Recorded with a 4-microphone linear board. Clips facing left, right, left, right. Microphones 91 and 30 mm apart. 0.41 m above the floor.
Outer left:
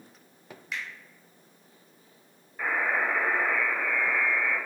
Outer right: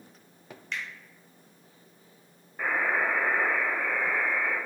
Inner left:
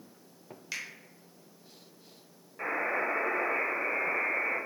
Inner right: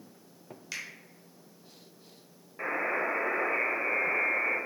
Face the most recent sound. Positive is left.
turn(degrees=-10)  # may be behind; listen again after turning